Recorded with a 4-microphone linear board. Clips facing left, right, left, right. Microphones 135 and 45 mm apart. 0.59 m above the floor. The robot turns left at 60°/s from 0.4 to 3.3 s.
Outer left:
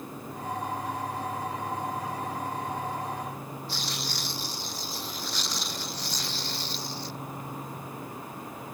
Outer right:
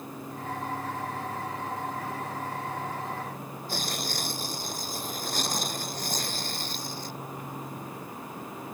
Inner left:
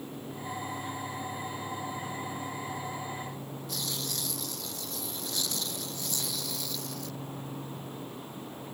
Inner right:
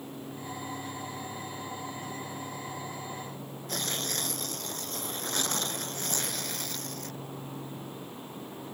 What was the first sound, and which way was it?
Tearing paper, 50° right (ahead or behind).